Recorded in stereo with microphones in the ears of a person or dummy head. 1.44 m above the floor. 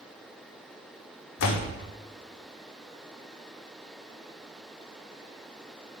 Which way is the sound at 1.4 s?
65° left (ahead or behind).